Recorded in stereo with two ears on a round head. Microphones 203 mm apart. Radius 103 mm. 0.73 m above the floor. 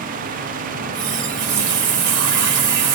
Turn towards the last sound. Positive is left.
turn(degrees=-50)  # may be behind; listen again after turning